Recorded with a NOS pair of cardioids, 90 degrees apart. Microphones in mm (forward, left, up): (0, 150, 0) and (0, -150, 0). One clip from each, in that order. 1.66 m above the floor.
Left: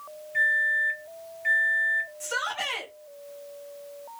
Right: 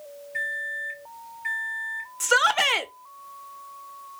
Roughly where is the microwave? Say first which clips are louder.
Left 7 dB; ahead.